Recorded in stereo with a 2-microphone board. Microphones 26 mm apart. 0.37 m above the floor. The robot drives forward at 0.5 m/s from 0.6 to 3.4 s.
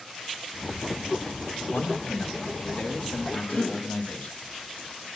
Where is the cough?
70° left (ahead or behind), 5.5 m.